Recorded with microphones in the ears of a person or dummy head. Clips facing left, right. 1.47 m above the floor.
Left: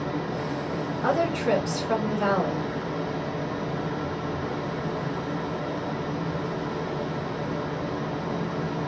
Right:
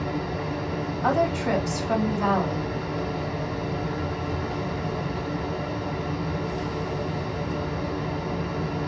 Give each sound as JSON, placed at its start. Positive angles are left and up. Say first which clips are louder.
{"t": 0.0, "sound": "running water", "louder": "even", "side_deg": -35, "distance_m": 1.6}
{"t": 1.0, "sound": "a woman speaking", "louder": "even", "side_deg": 5, "distance_m": 4.0}